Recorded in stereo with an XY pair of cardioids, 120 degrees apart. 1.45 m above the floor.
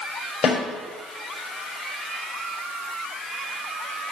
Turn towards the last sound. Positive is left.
turn(degrees=35)